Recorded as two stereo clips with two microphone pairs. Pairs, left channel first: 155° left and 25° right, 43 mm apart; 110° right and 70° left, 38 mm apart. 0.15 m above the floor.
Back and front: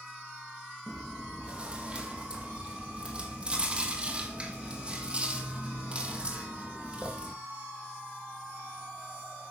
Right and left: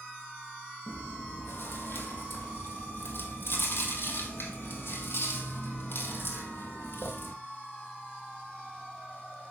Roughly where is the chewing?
Right.